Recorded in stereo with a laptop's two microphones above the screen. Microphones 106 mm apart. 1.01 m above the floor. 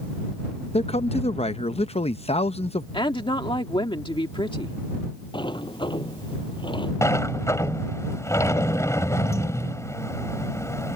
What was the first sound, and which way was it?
A man speaking, 75° left (ahead or behind).